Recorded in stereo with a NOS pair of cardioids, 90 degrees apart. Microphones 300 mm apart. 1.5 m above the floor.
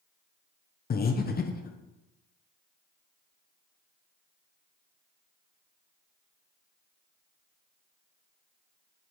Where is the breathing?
30° left, 0.8 m.